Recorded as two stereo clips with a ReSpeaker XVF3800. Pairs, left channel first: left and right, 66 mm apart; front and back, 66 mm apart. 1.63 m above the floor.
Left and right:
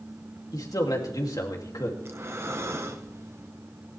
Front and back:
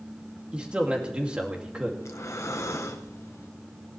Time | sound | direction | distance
0.5 | a man speaking | 105° left | 2.5 m
2.0 | breathing | 45° right | 1.2 m